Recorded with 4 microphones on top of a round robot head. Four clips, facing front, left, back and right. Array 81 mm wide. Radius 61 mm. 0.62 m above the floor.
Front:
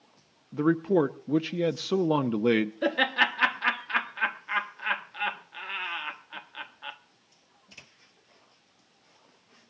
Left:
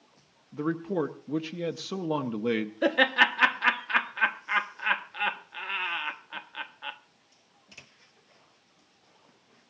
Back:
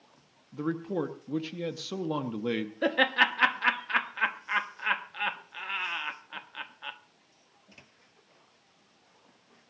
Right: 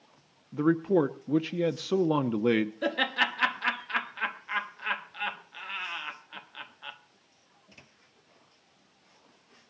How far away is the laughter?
About 1.1 m.